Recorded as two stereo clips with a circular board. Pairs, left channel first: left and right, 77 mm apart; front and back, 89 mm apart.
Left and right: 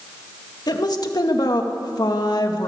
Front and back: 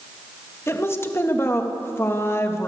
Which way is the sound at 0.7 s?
60° left.